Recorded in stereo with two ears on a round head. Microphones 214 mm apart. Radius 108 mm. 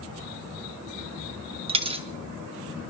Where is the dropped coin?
25° right (ahead or behind), 0.6 m.